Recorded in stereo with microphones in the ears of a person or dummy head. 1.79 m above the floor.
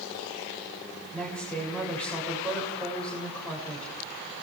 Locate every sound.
1.1 s a woman speaking: 5° left (ahead or behind), 7 m